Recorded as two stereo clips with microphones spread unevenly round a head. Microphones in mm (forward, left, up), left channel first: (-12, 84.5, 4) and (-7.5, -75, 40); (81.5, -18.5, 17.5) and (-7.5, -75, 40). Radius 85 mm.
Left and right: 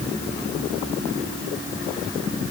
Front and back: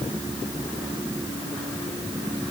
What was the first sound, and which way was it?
Only background noise.